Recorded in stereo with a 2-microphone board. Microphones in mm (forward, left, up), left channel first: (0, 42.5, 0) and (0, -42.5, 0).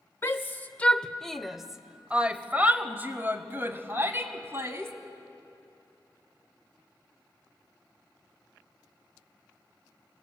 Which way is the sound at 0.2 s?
35° left (ahead or behind).